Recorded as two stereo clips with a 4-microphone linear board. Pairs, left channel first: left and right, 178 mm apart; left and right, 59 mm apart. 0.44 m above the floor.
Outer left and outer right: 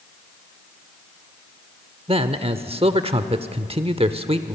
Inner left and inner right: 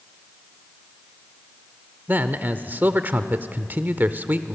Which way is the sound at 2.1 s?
35° right (ahead or behind).